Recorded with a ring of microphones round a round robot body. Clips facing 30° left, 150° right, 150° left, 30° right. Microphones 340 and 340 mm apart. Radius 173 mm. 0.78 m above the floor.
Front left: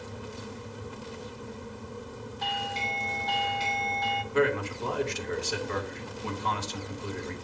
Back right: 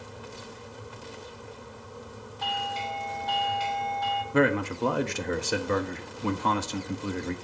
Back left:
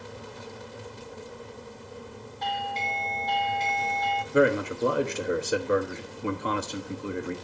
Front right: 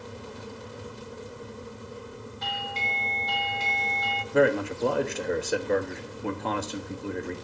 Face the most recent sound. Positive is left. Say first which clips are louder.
# back right 2 dB, even
turn(degrees=-125)